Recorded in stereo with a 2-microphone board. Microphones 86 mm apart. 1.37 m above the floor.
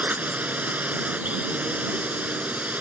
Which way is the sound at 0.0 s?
15° right (ahead or behind).